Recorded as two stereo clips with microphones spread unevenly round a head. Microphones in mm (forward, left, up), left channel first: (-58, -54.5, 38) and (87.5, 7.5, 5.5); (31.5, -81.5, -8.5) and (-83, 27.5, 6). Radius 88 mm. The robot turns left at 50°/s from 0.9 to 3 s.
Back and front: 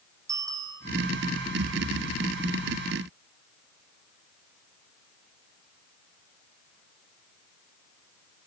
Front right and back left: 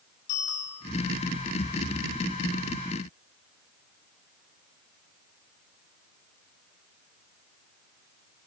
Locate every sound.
0.3 s a bicycle bell: 50° right, 4.5 m